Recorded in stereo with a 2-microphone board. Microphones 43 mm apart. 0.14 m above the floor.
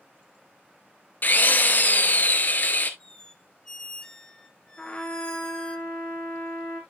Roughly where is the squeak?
Centre.